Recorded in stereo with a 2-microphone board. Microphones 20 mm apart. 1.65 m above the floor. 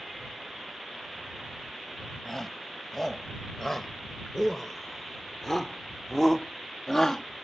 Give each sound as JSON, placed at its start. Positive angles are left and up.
{"t": 2.2, "sound": "a shout", "side_deg": 20}